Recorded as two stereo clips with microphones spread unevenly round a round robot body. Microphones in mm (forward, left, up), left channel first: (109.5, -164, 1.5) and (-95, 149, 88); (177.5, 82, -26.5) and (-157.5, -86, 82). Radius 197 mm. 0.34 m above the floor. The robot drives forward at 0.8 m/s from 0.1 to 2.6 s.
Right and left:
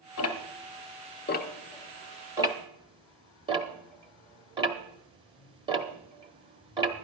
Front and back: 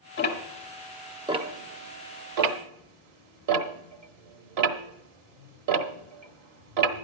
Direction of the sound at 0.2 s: 20° right.